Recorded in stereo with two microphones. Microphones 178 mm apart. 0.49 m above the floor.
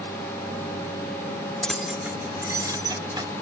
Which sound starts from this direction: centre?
Keys jangling, at 1.6 s.